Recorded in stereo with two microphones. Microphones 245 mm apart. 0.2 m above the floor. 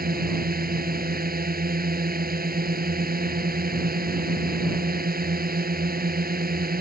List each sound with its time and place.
0.0 s a drone: 40° right (ahead or behind)